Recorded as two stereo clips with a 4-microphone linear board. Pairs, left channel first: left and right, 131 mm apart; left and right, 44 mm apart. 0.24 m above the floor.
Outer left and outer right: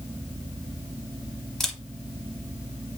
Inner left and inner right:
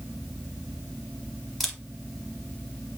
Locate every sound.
1.6 s a camera shutter: 5° left (ahead or behind), 0.8 m